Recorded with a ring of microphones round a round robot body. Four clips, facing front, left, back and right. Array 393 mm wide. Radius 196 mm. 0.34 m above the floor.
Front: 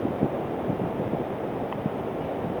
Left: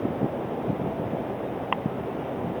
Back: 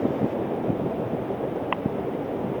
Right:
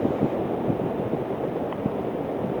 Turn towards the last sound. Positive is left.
No sound to turn to.